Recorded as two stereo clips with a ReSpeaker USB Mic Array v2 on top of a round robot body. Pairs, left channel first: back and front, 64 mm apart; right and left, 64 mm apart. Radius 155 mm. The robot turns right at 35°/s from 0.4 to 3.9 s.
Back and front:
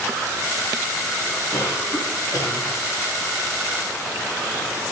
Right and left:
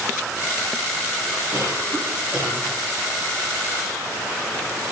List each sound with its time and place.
1.5 s a cough: 130° left, 3 m; by 2.8 s 175° left, 3 m